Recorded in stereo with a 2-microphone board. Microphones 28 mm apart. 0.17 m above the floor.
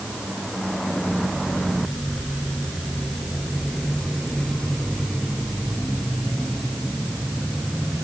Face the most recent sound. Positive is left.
No sound to turn to.